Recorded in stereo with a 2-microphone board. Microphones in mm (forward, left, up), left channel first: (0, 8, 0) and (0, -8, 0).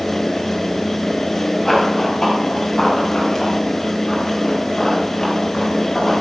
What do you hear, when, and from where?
1.6 s running footsteps: 10° left (ahead or behind), 4.5 m; by 6.1 s 30° left (ahead or behind), 7.5 m